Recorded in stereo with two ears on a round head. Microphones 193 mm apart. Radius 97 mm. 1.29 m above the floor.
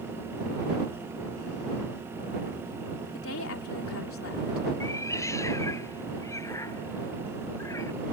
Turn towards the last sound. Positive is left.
turn(degrees=15)  # may be behind; listen again after turning